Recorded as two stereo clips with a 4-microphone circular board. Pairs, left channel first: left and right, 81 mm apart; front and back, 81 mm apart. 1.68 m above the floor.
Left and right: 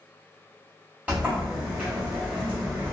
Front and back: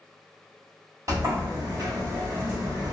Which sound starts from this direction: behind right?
A sliding door, at 1.1 s.